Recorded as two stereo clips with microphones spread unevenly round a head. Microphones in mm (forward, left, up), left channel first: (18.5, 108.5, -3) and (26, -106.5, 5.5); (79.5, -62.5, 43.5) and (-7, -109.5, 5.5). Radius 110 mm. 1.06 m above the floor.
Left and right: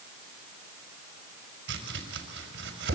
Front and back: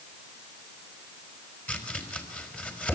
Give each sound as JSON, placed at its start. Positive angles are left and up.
{"t": 1.7, "sound": "chopping", "azimuth_deg": -50, "distance_m": 5.0}